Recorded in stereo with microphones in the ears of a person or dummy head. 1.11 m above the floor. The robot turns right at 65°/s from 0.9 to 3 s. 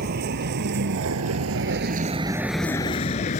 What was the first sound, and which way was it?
A vehicle, 50° right (ahead or behind).